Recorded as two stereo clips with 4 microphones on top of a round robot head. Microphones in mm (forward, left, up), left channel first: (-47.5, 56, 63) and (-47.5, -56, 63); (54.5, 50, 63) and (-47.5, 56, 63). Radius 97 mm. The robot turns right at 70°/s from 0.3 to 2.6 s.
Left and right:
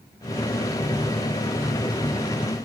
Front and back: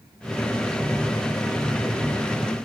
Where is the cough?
I don't hear a cough.